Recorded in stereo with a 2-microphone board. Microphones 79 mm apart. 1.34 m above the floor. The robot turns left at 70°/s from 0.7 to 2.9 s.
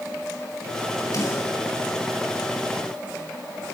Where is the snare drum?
55° left (ahead or behind), 7 m; by 1.5 s 30° left (ahead or behind), 7 m.